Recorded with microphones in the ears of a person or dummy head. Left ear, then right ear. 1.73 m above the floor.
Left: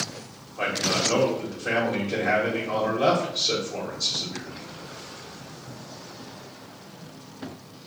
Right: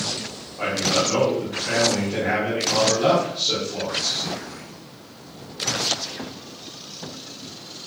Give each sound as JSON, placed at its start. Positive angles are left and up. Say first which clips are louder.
{"t": 0.6, "sound": "a man speaking", "louder": "right 3 dB", "side_deg": 60, "distance_m": 1.6}